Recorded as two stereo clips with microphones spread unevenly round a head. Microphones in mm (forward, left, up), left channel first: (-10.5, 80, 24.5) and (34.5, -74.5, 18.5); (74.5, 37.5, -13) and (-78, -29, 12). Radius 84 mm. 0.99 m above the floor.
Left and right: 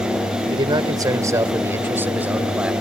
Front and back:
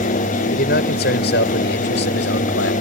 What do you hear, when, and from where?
0.5 s a man speaking: 10° right; by 2.7 s 10° left